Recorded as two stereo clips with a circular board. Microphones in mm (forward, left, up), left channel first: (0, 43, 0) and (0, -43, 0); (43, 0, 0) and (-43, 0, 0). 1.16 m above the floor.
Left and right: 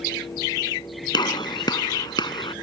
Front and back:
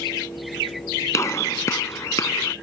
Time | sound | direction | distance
1.1 | a gunshot | 55° left | ?